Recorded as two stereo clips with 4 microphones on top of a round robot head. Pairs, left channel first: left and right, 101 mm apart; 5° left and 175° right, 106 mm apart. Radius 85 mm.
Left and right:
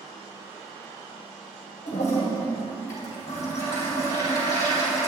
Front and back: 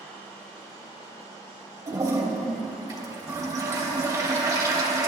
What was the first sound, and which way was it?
A toilet flushing, 130° left.